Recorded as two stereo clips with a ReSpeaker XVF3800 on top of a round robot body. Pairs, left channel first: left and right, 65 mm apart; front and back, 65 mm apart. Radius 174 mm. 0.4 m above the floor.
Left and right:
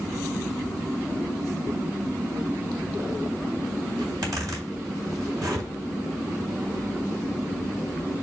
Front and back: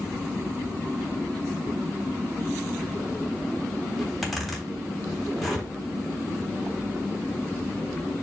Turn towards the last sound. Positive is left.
turn(degrees=-90)